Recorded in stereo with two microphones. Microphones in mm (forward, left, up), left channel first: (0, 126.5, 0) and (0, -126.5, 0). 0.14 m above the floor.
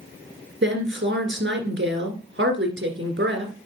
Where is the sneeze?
I don't hear a sneeze.